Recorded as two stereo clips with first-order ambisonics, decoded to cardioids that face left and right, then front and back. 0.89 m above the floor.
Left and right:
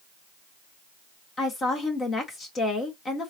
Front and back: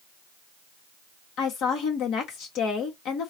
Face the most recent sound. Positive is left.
turn(degrees=30)